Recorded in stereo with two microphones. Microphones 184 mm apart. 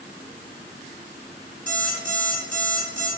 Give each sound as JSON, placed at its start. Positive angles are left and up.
{"t": 1.7, "sound": "an alarm clock", "side_deg": 5, "distance_m": 1.3}